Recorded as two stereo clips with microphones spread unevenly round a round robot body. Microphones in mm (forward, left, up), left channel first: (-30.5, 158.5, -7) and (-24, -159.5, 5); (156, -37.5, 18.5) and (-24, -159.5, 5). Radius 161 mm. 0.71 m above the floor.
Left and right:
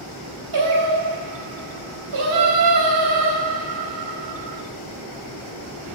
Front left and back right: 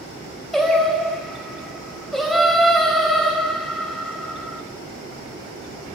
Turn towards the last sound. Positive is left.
turn(degrees=-55)